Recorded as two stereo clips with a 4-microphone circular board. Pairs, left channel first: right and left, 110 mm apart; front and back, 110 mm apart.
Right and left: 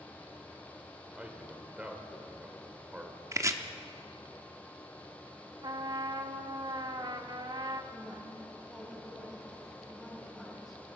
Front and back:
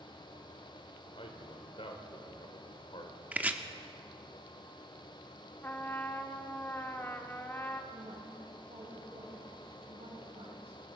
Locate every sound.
1.2 s a man speaking: 15° left, 1.8 m
3.3 s chopping: 115° left, 0.8 m
5.6 s a trumpet: 65° left, 0.9 m
7.9 s a woman speaking: straight behind, 4 m